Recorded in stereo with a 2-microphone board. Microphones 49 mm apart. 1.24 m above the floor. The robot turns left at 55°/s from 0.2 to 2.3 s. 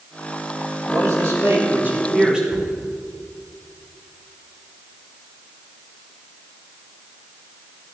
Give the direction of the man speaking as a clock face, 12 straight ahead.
3 o'clock.